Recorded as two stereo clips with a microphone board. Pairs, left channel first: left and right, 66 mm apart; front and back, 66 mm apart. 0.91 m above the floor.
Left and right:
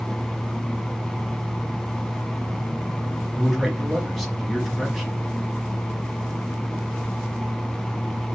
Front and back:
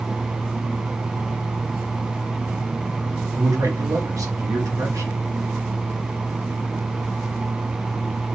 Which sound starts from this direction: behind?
A man speaking, at 3.3 s.